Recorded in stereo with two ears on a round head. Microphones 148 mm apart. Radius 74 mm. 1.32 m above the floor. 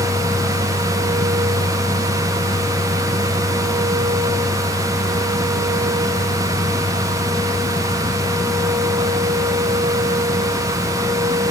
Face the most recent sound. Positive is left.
No sound to turn to.